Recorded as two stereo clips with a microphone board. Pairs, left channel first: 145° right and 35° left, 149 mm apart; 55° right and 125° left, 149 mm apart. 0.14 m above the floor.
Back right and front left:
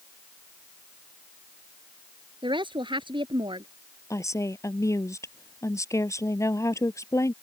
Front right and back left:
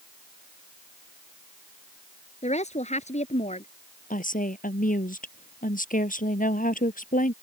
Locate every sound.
2.4 s a woman speaking: 20° right
4.1 s a woman speaking: 75° right